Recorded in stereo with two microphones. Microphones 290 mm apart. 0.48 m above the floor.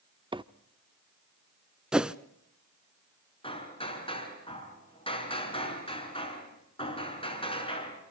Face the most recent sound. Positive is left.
turn(degrees=20)  # may be behind; listen again after turning